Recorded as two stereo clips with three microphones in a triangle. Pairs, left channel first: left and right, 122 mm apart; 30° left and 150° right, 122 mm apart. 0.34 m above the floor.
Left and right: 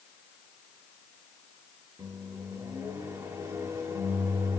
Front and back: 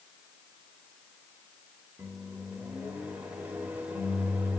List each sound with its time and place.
2.0 s a microwave: 90° right, 0.8 m